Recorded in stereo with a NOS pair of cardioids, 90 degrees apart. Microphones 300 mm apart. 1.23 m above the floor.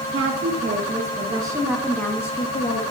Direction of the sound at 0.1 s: 40° right.